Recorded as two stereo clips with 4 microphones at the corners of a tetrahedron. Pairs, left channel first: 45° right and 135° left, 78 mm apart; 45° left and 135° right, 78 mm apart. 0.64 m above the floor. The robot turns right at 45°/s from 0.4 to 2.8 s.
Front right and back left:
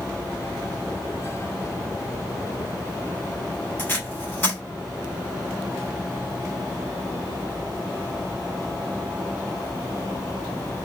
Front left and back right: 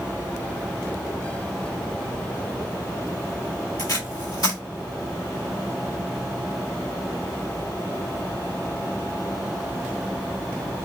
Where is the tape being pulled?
25° left, 2 m.